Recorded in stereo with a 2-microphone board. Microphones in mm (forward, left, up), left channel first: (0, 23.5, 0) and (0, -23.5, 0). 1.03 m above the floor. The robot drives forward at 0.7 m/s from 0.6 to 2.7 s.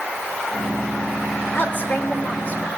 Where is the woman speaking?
45° left (ahead or behind), 3.5 m; by 2.7 s 40° left (ahead or behind), 4 m.